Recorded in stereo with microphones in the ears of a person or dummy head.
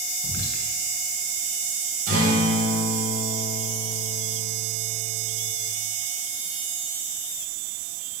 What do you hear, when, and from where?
0.2 s whispering: 85° left, 1.7 m
2.1 s a guitar: 40° right (ahead or behind), 4 m